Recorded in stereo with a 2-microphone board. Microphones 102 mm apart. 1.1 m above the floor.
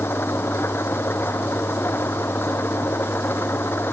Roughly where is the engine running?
Left.